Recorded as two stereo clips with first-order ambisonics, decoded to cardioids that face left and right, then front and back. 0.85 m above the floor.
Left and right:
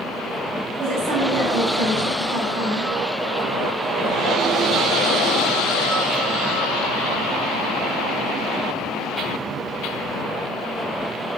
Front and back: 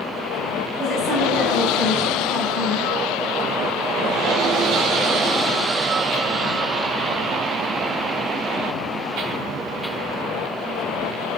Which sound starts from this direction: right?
A woman speaking, at 0.8 s.